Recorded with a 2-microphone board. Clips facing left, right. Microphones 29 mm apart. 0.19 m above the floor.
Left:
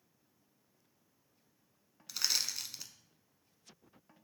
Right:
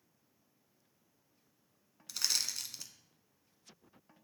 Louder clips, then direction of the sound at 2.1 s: Left 1 dB; 10° left (ahead or behind).